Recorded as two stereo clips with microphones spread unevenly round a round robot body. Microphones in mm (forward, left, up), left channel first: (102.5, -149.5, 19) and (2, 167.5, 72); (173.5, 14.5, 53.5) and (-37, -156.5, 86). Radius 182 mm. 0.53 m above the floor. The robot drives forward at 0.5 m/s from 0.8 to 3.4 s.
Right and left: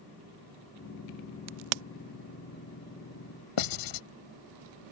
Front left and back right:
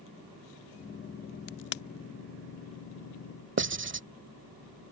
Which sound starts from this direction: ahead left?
A crack, at 1.5 s.